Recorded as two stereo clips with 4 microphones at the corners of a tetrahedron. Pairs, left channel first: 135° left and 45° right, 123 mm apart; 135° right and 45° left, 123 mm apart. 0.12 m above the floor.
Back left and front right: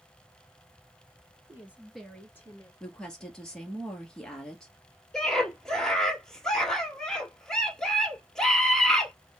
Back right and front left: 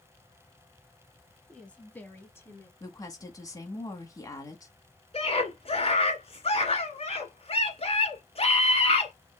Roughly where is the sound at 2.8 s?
Behind right.